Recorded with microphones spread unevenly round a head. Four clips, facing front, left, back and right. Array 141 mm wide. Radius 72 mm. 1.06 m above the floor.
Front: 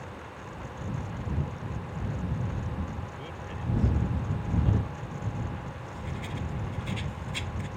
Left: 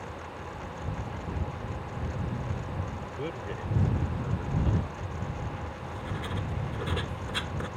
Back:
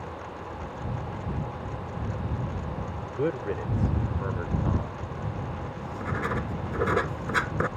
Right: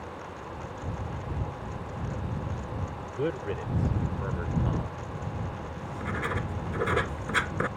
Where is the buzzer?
No buzzer in this recording.